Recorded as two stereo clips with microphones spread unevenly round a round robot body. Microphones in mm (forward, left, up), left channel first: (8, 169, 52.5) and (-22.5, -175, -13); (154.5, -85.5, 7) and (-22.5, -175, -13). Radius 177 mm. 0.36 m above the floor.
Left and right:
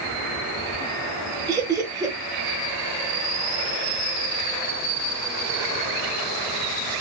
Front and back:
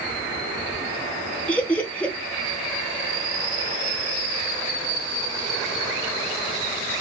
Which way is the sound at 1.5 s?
65° right.